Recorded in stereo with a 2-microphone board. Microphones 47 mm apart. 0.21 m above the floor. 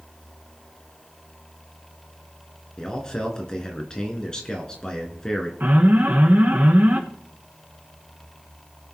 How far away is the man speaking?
About 2.5 m.